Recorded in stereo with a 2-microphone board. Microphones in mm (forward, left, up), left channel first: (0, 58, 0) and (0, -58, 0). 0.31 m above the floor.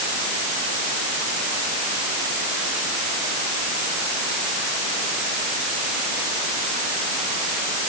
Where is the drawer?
I don't hear a drawer.